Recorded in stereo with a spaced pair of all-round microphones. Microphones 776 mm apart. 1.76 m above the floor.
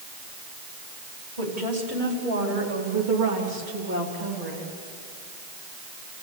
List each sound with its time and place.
1.4 s a woman speaking: 75° right (ahead or behind), 5 m; by 4.7 s 50° right (ahead or behind), 3.5 m